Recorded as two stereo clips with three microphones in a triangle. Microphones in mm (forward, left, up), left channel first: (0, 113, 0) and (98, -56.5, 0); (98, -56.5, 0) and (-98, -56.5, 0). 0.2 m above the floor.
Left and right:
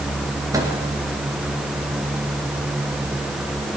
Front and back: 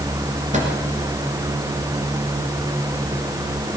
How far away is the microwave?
About 3 m.